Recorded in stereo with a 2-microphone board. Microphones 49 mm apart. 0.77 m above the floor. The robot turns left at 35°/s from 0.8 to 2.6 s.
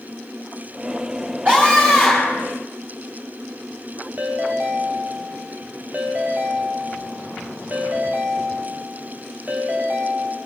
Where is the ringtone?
35° right (ahead or behind), 3 m.